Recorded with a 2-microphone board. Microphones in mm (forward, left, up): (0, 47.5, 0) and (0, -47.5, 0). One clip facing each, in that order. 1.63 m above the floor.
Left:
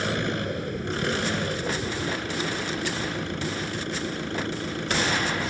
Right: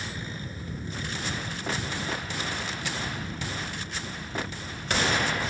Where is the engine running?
75° left (ahead or behind).